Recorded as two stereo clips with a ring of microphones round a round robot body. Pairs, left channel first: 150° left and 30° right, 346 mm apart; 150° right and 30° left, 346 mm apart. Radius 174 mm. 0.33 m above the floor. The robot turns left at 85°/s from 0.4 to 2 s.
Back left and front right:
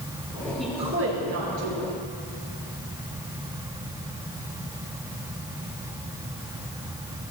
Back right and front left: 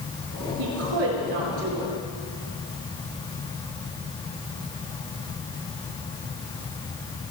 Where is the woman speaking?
60° left, 5.5 m; by 1.9 s 50° right, 5.5 m.